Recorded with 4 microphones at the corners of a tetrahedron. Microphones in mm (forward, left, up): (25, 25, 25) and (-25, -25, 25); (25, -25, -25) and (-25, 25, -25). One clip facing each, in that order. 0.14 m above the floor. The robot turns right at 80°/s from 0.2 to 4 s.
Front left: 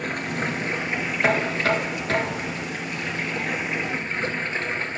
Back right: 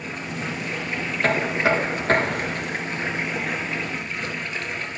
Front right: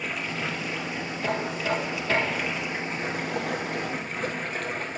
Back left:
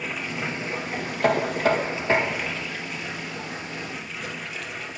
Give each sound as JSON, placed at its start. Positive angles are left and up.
{"t": 0.0, "sound": "running water", "azimuth_deg": 50, "distance_m": 3.0}
{"t": 1.2, "sound": "knocking", "azimuth_deg": 120, "distance_m": 1.7}